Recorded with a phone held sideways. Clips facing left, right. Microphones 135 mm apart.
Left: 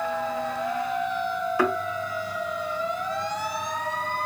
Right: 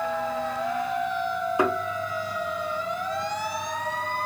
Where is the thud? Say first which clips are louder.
Even; 20° right (ahead or behind), 0.8 m.